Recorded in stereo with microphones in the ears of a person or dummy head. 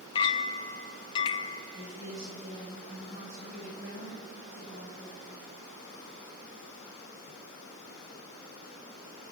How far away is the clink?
About 0.8 m.